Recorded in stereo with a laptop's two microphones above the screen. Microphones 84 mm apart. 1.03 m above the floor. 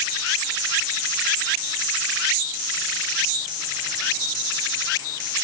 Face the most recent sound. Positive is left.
No sound to turn to.